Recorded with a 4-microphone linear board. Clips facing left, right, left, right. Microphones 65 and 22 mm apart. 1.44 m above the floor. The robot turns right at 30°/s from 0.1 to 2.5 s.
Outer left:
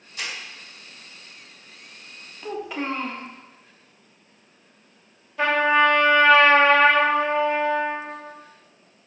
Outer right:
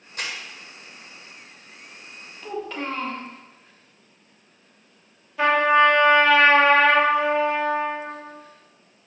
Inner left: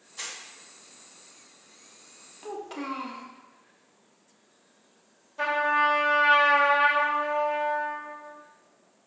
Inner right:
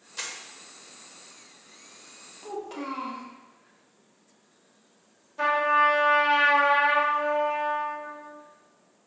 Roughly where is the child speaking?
Centre.